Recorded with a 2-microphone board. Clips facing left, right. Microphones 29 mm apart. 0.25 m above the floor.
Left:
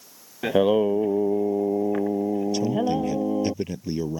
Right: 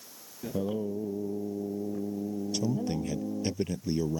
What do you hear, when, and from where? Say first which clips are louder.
0.4 s singing: left 13 dB; 65° left (ahead or behind)
2.5 s a man speaking: left 7 dB; 10° left (ahead or behind)